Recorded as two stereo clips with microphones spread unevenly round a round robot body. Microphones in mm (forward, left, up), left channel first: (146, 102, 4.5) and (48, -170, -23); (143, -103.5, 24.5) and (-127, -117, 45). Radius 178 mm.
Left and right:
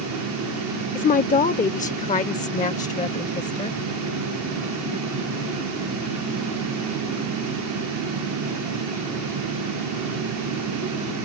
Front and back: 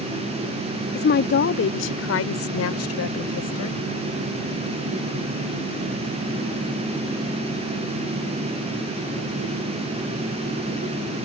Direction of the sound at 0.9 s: 15° left.